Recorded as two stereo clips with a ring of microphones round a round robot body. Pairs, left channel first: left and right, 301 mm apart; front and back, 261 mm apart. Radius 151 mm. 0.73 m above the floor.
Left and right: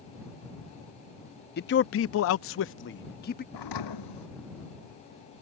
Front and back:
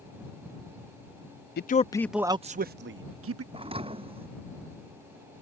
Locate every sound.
1.6 s a man speaking: 40° left; by 3.4 s 150° left
3.5 s a thud: 110° left